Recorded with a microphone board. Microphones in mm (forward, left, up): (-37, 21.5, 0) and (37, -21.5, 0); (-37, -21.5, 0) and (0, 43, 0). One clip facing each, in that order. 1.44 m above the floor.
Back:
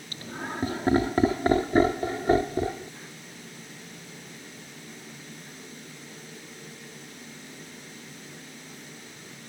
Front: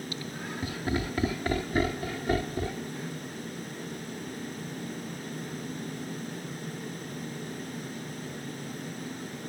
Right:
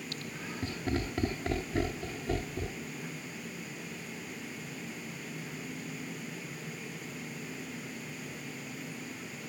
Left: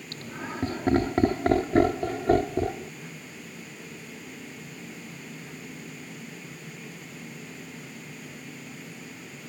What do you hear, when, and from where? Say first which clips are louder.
0.1 s laughter: back 1 dB, left 5 dB; 105° left; by 2.9 s 85° left